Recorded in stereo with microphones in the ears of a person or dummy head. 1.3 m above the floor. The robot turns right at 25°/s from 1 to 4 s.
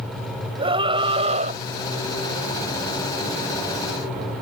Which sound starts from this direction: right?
A scream, at 0.6 s.